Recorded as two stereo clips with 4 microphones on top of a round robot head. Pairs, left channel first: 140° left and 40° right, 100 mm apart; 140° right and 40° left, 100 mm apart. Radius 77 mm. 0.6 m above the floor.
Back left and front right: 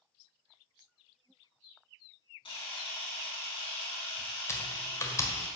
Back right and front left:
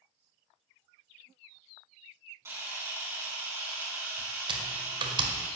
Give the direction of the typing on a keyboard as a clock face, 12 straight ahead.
9 o'clock.